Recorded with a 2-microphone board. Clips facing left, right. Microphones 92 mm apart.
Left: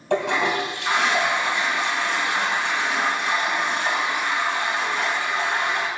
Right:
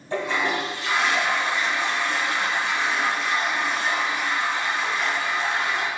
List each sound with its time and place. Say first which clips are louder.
0.1 s a toilet flushing: left 3 dB; 75° left (ahead or behind), 2.5 m